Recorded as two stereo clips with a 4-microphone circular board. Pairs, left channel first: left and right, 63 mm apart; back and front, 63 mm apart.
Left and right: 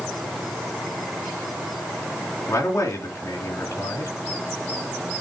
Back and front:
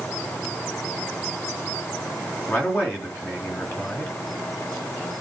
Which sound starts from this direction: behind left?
A man speaking, at 2.5 s.